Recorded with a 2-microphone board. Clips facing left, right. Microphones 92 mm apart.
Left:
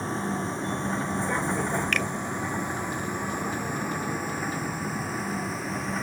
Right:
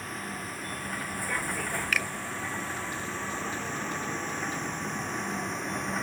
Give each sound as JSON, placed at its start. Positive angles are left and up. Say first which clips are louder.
{"t": 0.0, "sound": "a vehicle", "louder": "left 8 dB", "side_deg": 30}
{"t": 1.9, "sound": "a finger snap", "louder": "left 3 dB", "side_deg": -5}